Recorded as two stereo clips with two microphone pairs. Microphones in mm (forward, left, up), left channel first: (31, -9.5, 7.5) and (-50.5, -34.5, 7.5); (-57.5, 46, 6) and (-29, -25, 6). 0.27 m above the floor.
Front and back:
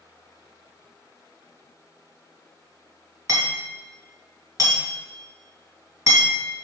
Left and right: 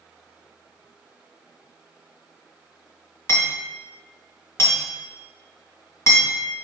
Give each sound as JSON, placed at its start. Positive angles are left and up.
{"t": 3.3, "sound": "hammering", "azimuth_deg": 160, "distance_m": 2.0}